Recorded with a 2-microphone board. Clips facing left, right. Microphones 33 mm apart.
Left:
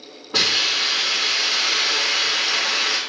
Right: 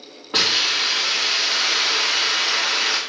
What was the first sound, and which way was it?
A hiss, 55° right (ahead or behind).